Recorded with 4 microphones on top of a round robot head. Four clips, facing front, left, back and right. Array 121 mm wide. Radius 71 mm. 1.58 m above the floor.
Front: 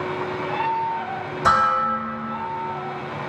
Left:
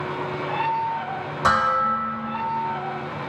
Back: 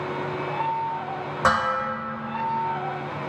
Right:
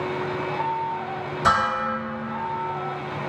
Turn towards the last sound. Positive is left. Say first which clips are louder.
# left 2 dB, front 4 dB
turn(degrees=160)